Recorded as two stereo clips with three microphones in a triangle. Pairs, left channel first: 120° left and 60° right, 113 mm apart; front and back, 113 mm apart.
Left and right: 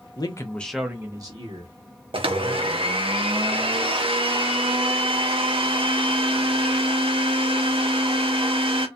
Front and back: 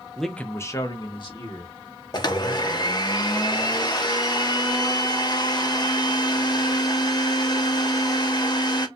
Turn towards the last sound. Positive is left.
turn(degrees=-40)